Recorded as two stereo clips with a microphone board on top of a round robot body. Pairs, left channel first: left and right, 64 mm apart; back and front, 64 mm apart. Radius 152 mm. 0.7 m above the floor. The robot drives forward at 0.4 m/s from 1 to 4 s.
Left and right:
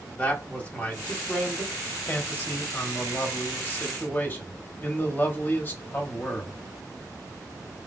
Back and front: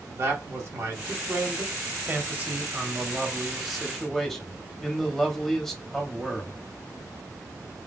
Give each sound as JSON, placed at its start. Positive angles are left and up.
{"t": 0.2, "sound": "a man speaking", "azimuth_deg": 25, "distance_m": 1.5}